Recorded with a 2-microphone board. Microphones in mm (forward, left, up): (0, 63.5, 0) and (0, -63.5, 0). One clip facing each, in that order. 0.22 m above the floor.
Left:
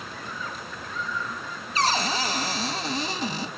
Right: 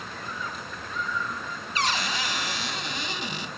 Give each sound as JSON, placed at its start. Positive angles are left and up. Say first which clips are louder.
{"t": 1.8, "sound": "a cupboard door", "louder": "left 4 dB", "side_deg": 35, "distance_m": 0.9}